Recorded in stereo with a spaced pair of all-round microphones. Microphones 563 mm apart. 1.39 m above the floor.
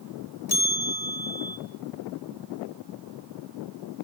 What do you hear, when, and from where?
0.5 s a bell: 40° left (ahead or behind), 1.2 m